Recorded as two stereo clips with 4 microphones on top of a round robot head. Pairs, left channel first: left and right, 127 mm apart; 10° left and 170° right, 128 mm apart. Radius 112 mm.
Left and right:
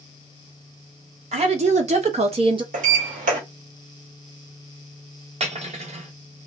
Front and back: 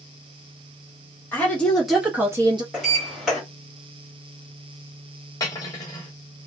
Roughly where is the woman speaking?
Right.